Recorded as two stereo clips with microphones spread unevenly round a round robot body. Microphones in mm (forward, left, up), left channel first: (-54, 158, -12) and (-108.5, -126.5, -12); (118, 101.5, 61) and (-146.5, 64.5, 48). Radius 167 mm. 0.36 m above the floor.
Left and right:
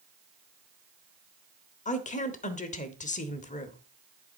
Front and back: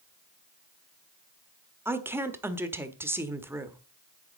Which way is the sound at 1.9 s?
120° left.